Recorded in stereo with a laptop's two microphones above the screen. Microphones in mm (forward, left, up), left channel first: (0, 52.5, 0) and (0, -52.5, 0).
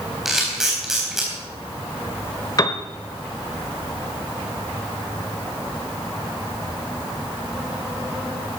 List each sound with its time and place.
0.2 s a camera shutter: 5° right (ahead or behind), 4 m
2.6 s a piano: 35° left (ahead or behind), 1.0 m